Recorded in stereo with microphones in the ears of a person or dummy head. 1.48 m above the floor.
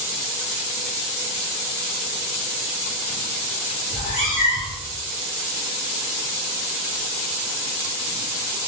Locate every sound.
3.9 s a cat meowing: 45° left (ahead or behind), 1.8 m